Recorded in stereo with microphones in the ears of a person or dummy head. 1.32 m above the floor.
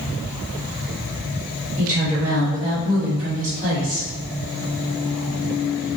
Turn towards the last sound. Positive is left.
turn(degrees=-15)  # may be behind; listen again after turning